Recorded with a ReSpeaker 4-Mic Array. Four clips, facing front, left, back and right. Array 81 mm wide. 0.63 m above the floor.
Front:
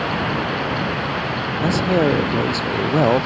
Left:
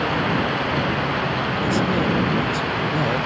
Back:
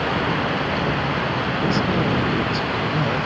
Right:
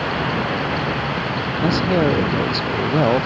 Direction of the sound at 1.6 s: 30° right.